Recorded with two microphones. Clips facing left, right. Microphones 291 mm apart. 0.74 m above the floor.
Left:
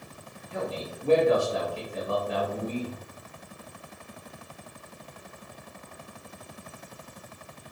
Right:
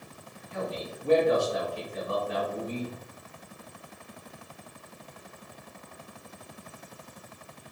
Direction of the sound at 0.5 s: 45° left (ahead or behind).